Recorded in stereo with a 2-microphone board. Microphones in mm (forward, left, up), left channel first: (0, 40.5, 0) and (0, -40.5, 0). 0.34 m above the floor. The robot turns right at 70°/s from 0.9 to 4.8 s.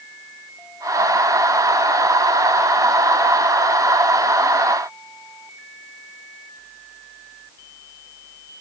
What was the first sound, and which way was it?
Only background noise.